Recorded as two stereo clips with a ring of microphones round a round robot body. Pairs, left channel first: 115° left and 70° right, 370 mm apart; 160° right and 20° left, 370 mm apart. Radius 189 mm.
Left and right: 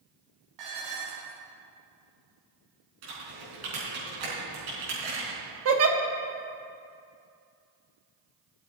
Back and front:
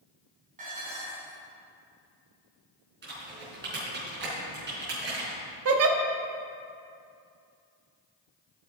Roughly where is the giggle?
Ahead.